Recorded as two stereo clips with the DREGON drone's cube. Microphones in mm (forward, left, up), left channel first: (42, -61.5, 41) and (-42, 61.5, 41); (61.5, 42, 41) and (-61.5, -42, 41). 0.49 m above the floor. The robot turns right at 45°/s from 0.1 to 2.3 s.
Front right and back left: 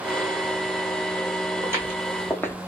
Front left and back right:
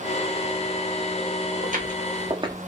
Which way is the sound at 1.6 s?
170° right.